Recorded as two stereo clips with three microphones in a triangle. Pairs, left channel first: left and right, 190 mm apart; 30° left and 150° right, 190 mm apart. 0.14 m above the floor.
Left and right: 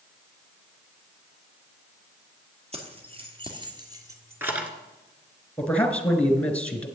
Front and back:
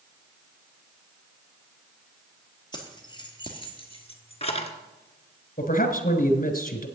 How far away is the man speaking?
About 1.7 m.